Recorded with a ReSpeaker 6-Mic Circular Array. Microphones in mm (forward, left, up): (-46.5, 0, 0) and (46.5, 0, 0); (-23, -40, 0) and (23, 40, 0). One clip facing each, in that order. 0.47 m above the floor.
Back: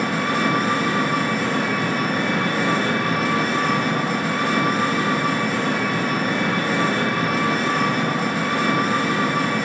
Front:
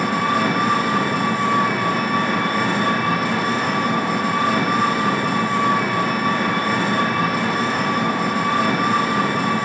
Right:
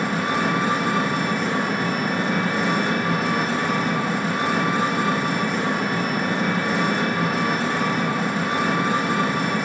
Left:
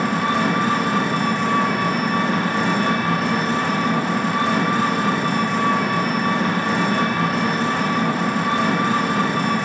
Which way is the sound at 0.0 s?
30° left.